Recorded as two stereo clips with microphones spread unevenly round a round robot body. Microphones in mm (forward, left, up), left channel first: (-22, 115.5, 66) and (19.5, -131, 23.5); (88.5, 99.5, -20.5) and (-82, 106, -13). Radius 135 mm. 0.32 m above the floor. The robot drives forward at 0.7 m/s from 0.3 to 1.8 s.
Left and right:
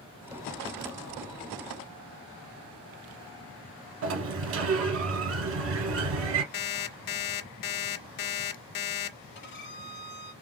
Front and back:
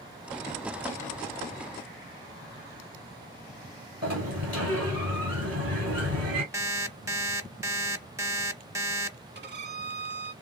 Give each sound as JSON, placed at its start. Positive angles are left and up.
{"t": 4.0, "sound": "a sliding door", "azimuth_deg": -125, "distance_m": 0.8}
{"t": 6.5, "sound": "an alarm clock", "azimuth_deg": 100, "distance_m": 0.7}
{"t": 9.3, "sound": "a violin", "azimuth_deg": 150, "distance_m": 0.8}